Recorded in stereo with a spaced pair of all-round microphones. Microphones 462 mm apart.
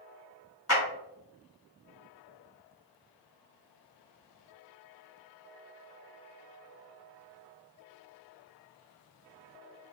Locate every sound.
0.7 s a clap: 30° left (ahead or behind), 1.4 m